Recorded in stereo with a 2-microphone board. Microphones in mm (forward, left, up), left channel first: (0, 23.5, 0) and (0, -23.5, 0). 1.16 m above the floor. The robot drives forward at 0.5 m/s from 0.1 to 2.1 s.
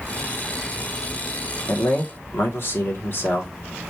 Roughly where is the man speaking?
Left.